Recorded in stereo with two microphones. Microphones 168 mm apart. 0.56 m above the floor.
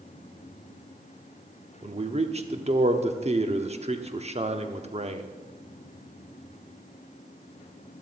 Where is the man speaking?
40° right (ahead or behind), 0.9 m.